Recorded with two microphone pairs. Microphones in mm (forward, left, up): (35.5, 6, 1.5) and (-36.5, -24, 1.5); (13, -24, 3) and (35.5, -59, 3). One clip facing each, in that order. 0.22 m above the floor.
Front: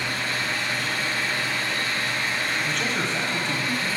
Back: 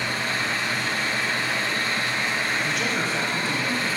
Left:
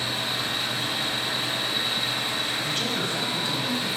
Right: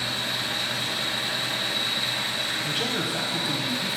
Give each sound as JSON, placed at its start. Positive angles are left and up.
{"t": 0.0, "sound": "an engine running", "azimuth_deg": 170, "distance_m": 3.5}
{"t": 2.6, "sound": "a man speaking", "azimuth_deg": -90, "distance_m": 1.1}